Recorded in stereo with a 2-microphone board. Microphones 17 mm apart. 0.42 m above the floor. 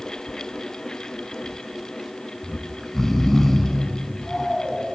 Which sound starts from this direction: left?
Snoring, at 2.4 s.